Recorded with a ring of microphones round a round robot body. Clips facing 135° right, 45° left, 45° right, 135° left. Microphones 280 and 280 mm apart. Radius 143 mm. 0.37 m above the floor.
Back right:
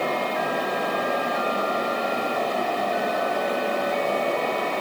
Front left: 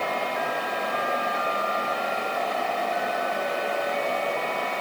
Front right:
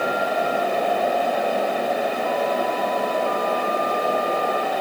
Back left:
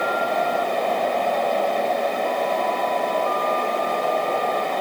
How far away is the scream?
No scream in this recording.